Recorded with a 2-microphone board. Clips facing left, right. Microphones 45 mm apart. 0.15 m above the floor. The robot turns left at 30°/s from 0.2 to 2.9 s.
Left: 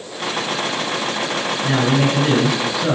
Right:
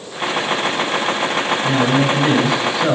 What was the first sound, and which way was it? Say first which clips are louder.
A man speaking: even; 25° left.